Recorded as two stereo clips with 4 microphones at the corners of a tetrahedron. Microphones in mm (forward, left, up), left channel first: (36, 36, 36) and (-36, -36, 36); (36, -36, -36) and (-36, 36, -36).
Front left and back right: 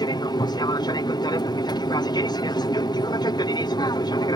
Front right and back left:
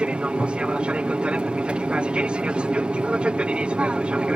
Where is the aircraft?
60° left.